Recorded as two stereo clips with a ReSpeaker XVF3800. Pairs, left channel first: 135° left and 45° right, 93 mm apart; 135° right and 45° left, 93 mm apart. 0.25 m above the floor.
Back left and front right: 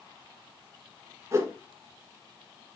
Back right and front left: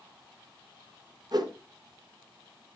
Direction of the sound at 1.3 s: 10° left.